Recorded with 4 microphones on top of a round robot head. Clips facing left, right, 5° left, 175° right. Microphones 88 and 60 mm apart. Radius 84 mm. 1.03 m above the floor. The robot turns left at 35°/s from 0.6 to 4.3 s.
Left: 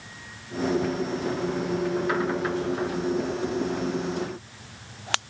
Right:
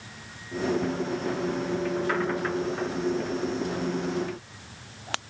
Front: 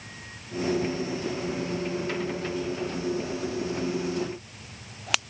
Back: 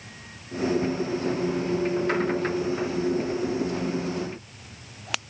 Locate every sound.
Only background noise.